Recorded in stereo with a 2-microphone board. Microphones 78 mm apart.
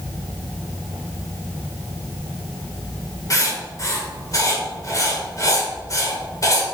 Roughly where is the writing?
Left.